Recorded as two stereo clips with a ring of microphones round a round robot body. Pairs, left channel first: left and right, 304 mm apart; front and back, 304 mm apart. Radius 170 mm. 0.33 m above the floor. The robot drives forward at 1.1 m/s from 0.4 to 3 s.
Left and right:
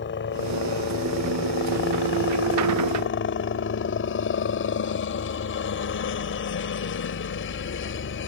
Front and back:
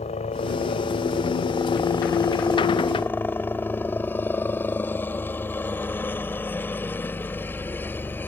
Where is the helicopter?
60° left; by 8.3 s 80° left.